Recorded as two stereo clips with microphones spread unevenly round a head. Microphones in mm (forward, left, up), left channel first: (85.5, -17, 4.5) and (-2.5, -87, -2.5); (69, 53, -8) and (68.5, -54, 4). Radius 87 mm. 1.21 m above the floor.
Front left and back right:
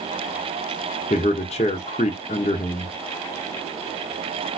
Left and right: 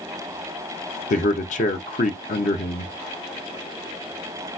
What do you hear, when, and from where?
1.1 s a man speaking: 95° left, 0.7 m